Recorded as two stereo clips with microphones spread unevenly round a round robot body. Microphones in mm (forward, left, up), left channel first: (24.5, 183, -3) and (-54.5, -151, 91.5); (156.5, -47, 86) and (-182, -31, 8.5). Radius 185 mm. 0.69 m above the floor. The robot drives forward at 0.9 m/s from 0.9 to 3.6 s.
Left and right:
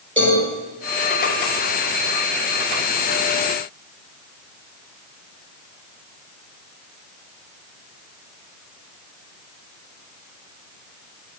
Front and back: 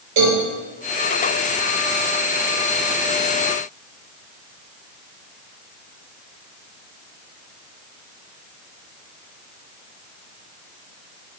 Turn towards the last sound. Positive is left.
turn(degrees=180)